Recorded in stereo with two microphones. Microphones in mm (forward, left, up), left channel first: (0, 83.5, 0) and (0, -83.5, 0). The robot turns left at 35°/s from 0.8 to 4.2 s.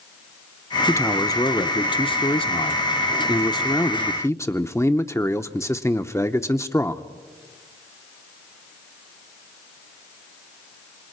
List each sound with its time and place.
0.9 s a man speaking: 150° left, 0.7 m; by 7.0 s 35° left, 0.7 m